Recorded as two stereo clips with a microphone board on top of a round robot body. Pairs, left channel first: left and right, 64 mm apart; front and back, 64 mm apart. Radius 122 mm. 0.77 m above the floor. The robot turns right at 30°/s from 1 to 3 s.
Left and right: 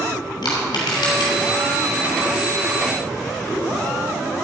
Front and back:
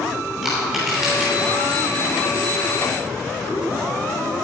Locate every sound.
0.4 s crushing: 95° left, 3 m; by 1.3 s 105° left, 3 m